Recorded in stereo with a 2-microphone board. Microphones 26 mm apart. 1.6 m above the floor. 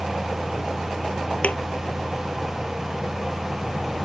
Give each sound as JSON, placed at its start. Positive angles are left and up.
{"t": 1.4, "sound": "a thud", "side_deg": 60}